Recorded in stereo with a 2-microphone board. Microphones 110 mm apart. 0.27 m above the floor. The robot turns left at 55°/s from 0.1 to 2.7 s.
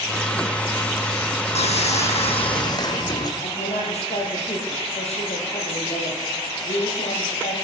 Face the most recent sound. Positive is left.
turn(degrees=80)